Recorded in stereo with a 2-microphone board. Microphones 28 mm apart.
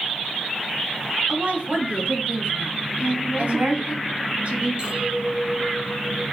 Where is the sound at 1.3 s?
50° right (ahead or behind), 2.5 m; by 4.0 s 45° right (ahead or behind), 2.5 m.